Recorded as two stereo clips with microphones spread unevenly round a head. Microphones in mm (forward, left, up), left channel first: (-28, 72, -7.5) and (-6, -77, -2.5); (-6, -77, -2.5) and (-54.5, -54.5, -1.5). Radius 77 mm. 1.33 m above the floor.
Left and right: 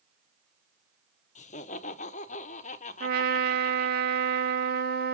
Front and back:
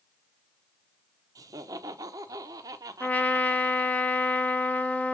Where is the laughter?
140° left, 0.9 m.